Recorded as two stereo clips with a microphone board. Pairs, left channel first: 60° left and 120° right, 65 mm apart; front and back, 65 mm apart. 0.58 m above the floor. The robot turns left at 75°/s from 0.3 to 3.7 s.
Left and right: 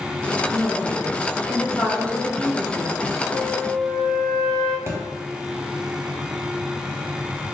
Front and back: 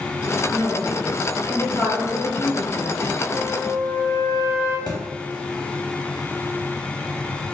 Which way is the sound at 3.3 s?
55° right.